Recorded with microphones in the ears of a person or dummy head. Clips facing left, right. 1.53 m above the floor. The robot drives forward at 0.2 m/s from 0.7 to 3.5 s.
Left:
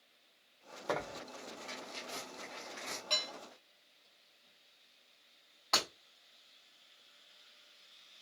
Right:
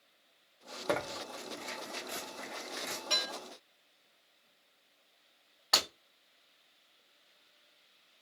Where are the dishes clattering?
5° right (ahead or behind), 1.4 m.